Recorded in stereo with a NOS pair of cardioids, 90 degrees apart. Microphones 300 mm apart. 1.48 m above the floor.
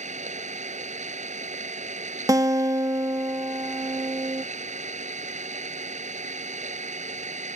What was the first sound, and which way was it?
An engine running, 25° right.